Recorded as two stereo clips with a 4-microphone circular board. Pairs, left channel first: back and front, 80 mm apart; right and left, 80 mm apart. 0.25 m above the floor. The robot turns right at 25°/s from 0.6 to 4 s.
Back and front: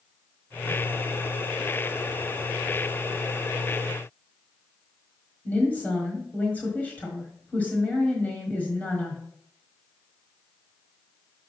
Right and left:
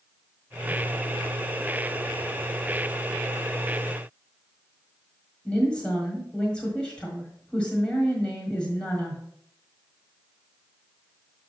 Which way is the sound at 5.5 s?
150° right.